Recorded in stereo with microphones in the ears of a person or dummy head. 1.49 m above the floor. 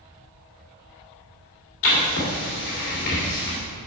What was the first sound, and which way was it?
Writing, 55° left (ahead or behind).